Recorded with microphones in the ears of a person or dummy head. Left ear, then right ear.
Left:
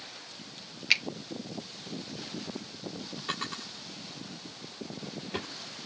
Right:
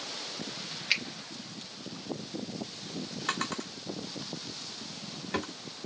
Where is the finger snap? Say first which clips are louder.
Left 3 dB; 15° left (ahead or behind), 0.8 m.